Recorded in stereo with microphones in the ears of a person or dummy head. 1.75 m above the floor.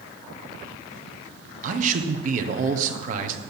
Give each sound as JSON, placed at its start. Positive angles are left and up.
{"t": 1.6, "sound": "a man speaking", "side_deg": -45, "distance_m": 1.5}